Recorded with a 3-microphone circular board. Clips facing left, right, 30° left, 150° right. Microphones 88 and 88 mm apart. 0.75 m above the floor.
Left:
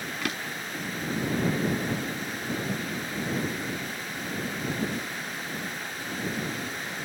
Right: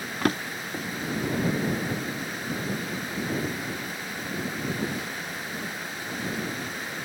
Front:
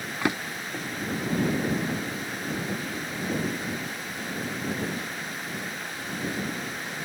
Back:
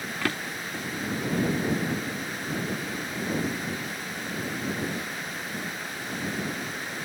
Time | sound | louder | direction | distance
0.2 | a drawer | right 9 dB, front 3 dB | 40° right | ?